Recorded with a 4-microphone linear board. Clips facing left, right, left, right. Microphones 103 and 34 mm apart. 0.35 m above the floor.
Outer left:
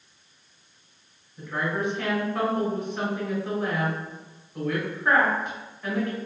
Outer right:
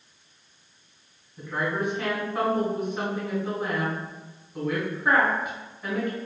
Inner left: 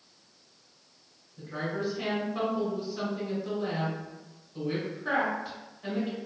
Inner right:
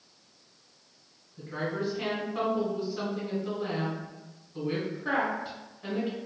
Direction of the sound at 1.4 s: 5° right (ahead or behind).